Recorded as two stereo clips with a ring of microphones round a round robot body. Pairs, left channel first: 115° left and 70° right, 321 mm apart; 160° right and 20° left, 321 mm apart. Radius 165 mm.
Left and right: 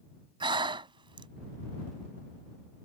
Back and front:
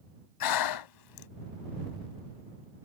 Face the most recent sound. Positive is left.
turn(degrees=-145)